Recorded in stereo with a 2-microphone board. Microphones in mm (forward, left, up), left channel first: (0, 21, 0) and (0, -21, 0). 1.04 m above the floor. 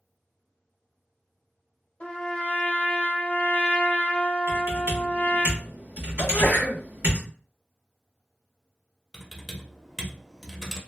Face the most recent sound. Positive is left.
turn(degrees=-5)  # may be behind; listen again after turning